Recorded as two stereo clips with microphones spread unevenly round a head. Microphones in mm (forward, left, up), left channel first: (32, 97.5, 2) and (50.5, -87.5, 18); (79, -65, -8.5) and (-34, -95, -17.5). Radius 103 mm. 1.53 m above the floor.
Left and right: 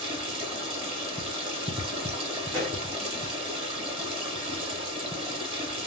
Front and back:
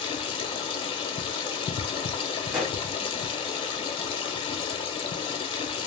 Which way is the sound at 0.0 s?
25° right.